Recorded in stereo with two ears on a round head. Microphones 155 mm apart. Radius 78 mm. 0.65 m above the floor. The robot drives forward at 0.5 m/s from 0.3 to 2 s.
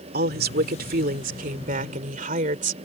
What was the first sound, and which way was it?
A woman speaking, 60° right (ahead or behind).